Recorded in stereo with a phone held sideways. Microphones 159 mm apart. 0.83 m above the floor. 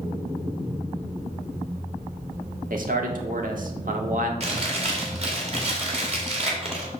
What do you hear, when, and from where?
2.7 s a man speaking: 60° right (ahead or behind), 1.4 m
4.4 s chewing: 40° right (ahead or behind), 2 m